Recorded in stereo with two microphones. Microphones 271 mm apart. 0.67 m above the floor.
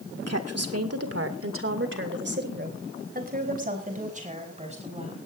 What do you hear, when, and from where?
0.3 s a woman speaking: 65° right (ahead or behind), 1.9 m; by 5.2 s 25° right (ahead or behind), 5.5 m